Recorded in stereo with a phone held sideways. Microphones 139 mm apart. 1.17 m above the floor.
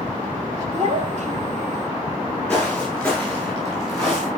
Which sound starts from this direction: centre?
Footsteps, at 2.5 s.